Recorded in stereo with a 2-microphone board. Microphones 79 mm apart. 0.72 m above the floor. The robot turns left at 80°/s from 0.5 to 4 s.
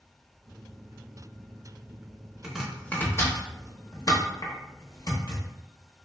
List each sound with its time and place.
2.4 s chopping: 10° right (ahead or behind), 0.8 m; by 5.4 s 50° left (ahead or behind), 0.8 m